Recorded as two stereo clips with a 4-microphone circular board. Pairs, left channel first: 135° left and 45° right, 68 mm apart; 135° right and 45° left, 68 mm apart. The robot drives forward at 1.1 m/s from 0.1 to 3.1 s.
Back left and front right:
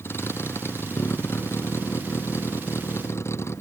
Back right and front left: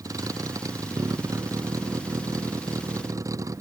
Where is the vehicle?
80° left; by 3.6 s 85° left.